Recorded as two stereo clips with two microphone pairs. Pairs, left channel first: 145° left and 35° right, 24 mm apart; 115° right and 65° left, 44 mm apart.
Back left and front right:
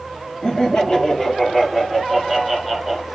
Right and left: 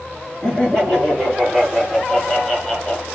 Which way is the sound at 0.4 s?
175° left.